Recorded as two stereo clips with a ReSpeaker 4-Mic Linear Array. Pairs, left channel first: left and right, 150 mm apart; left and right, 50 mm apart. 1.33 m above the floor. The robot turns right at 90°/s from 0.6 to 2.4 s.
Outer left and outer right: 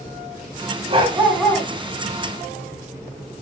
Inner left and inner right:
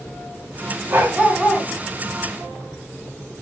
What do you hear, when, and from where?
0.9 s a dog barking: 45° right, 3.5 m; by 1.7 s 25° left, 3.5 m